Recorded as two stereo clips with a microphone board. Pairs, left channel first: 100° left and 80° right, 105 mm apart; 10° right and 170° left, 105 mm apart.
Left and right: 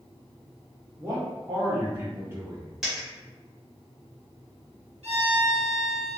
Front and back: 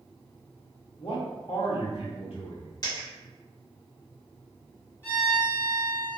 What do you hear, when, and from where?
1.0 s a man speaking: 15° right, 1.1 m
2.8 s a dropped coin: straight ahead, 1.9 m
5.0 s a violin: 80° right, 0.9 m